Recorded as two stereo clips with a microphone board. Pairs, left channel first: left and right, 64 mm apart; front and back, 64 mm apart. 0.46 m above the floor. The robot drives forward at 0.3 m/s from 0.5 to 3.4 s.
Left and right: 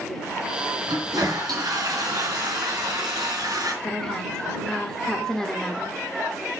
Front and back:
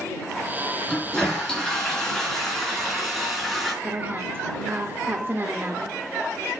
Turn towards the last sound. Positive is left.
turn(degrees=165)